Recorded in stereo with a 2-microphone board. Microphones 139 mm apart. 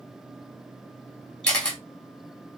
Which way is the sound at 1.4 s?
5° left (ahead or behind).